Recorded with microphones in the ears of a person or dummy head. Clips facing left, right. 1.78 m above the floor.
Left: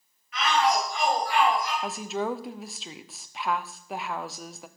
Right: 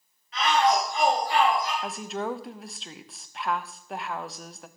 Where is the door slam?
I don't hear a door slam.